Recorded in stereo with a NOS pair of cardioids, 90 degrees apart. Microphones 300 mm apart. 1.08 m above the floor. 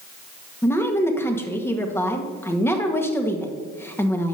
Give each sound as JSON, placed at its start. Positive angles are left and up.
{"t": 0.6, "sound": "a woman speaking", "azimuth_deg": 10, "distance_m": 1.4}